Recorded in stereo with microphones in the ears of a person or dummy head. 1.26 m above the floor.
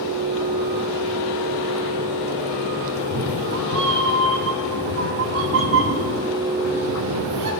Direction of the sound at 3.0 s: 65° right (ahead or behind).